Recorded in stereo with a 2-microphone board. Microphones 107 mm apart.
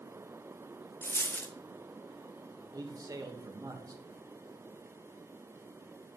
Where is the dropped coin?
20° left (ahead or behind), 0.6 m.